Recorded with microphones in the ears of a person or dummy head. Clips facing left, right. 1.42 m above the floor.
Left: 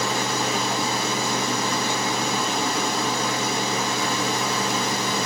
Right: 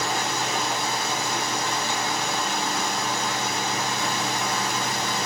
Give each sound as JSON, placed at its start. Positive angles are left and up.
{"t": 0.0, "sound": "running water", "side_deg": 70, "distance_m": 2.5}